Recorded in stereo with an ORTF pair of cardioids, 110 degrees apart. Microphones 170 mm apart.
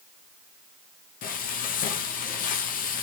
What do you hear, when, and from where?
1.2 s frying: 60° left, 0.7 m